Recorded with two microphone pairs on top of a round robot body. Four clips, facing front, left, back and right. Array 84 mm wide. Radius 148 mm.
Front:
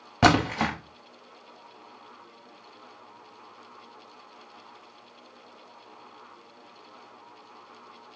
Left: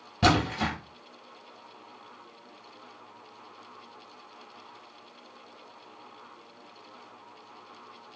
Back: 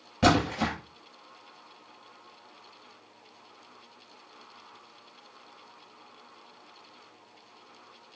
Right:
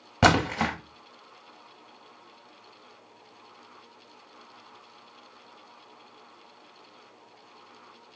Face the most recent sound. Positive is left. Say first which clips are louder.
# right 3 dB, front 3 dB
turn(degrees=-40)